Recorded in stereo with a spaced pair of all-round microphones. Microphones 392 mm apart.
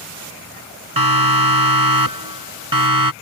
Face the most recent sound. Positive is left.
turn(degrees=-55)  # may be behind; listen again after turning